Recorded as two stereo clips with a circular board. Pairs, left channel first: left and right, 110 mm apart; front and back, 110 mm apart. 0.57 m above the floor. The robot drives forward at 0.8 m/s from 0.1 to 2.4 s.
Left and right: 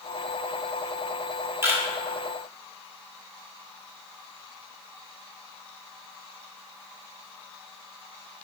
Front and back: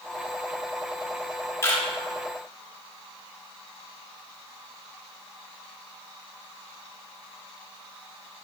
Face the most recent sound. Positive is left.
turn(degrees=-120)